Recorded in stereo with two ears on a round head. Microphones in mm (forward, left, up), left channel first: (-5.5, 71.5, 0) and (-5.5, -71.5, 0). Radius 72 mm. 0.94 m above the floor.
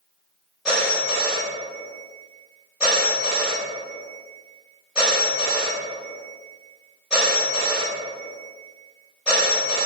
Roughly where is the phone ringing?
Centre.